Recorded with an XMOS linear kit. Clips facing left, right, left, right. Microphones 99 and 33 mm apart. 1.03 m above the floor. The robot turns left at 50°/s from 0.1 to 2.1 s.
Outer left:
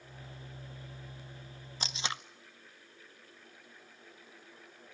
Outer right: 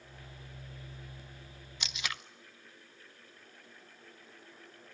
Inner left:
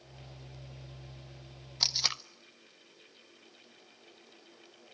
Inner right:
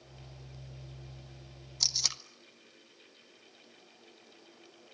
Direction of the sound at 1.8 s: 35° left (ahead or behind).